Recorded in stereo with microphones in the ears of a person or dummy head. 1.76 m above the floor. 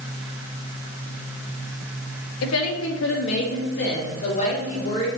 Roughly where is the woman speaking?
Left.